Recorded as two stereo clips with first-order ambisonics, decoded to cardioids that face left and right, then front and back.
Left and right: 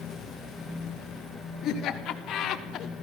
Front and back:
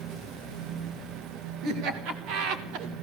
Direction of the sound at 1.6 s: 145° left.